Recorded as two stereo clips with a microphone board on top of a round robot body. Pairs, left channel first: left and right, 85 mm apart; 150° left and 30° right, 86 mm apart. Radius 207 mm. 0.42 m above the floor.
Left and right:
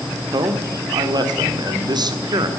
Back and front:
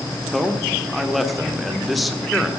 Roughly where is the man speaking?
Behind right.